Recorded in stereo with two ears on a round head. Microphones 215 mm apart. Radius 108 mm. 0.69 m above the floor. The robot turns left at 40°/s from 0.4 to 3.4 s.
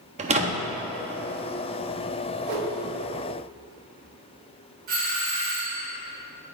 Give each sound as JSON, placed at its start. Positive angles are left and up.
{"t": 0.2, "sound": "a door slam", "side_deg": -25, "distance_m": 0.6}
{"t": 2.4, "sound": "a whoosh", "side_deg": -40, "distance_m": 1.8}
{"t": 4.9, "sound": "a doorbell", "side_deg": -35, "distance_m": 1.4}